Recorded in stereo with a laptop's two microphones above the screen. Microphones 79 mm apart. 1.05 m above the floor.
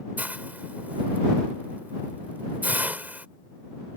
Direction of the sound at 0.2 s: 20° right (ahead or behind).